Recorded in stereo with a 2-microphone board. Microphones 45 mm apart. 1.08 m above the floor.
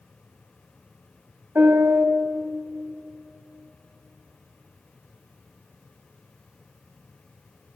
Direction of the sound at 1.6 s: 50° right (ahead or behind).